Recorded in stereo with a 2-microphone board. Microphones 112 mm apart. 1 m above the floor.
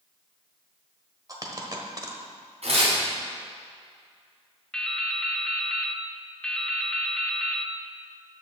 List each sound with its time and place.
1.3 s a dropped coin: 30° right (ahead or behind), 1.1 m
2.6 s tearing paper: 60° right (ahead or behind), 3.5 m
4.7 s dripping: 5° left (ahead or behind), 0.5 m